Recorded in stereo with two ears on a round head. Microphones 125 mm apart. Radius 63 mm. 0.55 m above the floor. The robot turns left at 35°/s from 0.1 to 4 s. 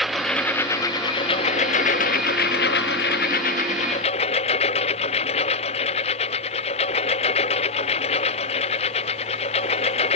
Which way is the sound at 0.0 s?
Straight behind.